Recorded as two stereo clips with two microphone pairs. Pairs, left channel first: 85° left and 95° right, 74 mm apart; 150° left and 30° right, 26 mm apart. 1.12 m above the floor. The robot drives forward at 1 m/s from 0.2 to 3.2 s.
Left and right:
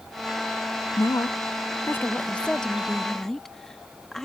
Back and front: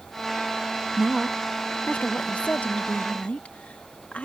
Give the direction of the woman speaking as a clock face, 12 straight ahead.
11 o'clock.